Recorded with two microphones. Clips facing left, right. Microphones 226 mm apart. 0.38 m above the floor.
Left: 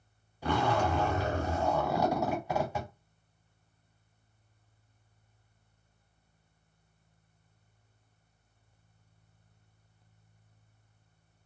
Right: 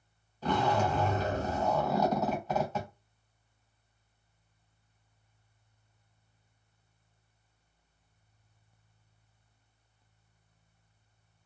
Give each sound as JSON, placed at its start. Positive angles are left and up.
{"t": 0.4, "sound": "a zipper", "side_deg": 10, "distance_m": 1.3}